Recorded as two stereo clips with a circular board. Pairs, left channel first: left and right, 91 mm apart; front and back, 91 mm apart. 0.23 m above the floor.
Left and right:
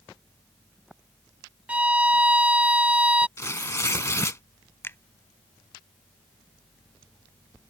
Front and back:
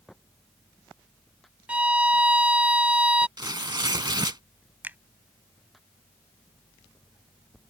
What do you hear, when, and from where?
1.7 s a violin: 135° right
3.4 s tearing paper: 145° left
4.8 s a finger snap: 130° left